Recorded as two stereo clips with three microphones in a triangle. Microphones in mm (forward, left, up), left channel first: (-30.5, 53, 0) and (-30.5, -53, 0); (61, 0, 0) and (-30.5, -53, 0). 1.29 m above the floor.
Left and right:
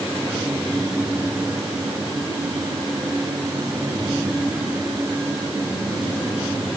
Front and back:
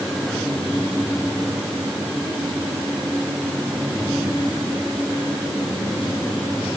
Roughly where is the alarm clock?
No alarm clock in this recording.